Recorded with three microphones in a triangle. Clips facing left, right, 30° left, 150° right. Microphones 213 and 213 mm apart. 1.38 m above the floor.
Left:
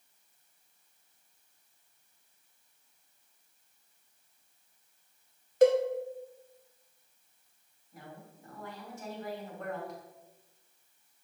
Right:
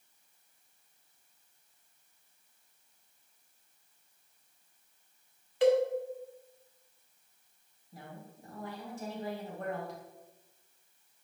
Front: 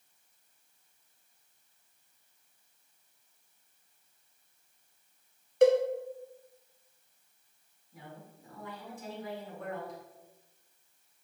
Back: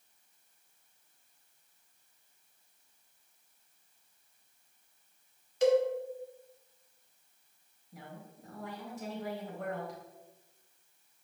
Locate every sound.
5.6 s a cowbell: 50° left, 0.8 m
7.9 s a woman speaking: 145° right, 3 m